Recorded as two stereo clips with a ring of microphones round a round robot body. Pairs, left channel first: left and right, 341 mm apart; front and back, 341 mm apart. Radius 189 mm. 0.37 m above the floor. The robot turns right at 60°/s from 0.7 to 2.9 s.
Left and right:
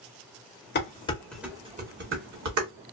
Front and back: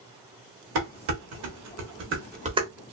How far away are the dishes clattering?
About 1.0 m.